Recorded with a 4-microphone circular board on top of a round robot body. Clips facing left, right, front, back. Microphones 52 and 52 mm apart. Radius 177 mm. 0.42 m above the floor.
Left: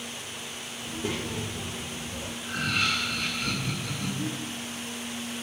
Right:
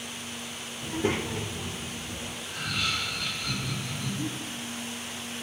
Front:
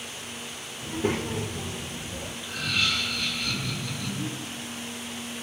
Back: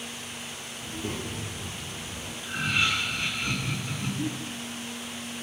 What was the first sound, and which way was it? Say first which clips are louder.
A child speaking: right 4 dB, front 7 dB; 50° right.